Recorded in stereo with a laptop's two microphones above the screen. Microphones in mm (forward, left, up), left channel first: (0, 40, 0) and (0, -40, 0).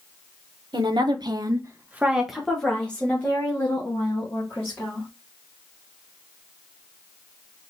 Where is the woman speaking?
60° right (ahead or behind), 0.7 m; by 5.1 s 30° left (ahead or behind), 2 m.